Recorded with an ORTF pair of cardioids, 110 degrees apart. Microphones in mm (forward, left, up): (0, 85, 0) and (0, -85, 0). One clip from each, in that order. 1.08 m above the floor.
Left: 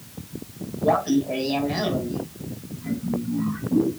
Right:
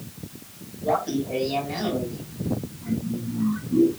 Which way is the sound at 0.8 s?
40° left.